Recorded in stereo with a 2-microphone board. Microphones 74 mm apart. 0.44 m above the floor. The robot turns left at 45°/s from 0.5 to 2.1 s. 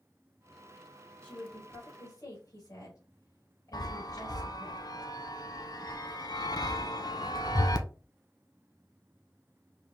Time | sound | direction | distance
1.2 | a woman speaking | 160° left | 1.9 m
3.7 | a chime | 65° left (ahead or behind) | 0.5 m